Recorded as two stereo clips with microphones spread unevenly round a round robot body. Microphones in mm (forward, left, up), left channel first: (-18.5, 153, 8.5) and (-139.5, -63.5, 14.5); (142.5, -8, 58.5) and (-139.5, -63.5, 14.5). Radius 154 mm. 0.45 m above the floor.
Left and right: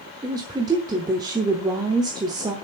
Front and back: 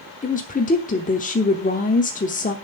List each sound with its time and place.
0.2 s a woman speaking: 50° right, 1.0 m